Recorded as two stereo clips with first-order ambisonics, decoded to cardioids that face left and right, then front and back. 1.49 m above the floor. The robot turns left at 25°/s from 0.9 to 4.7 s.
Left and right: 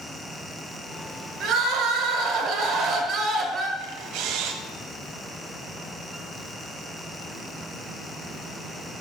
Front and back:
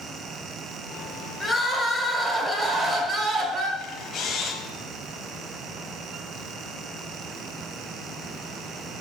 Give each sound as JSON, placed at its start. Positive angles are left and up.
{"t": 1.4, "sound": "crying", "azimuth_deg": -85, "distance_m": 1.4}
{"t": 3.8, "sound": "a camera shutter", "azimuth_deg": -50, "distance_m": 1.0}